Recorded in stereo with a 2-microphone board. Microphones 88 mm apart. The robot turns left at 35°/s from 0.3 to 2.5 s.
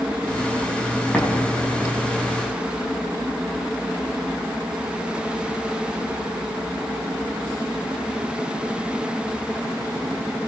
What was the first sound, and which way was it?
An explosion, 5° left (ahead or behind).